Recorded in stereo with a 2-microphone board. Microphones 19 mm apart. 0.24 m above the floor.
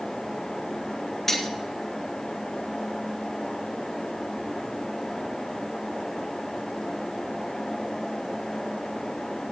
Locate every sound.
1.3 s cutlery clinking: 10° left (ahead or behind), 2 m